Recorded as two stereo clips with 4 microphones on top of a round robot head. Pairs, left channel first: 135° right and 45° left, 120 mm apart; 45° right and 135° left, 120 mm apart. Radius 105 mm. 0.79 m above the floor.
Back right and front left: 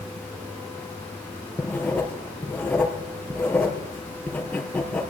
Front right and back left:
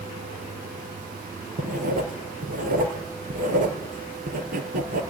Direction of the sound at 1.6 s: 140° left.